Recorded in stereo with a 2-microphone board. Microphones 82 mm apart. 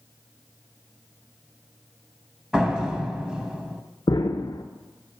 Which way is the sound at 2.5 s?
10° right (ahead or behind).